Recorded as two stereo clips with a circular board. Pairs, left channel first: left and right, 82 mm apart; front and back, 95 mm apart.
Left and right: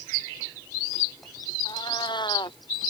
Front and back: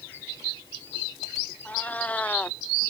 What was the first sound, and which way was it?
A cat meowing, 75° left.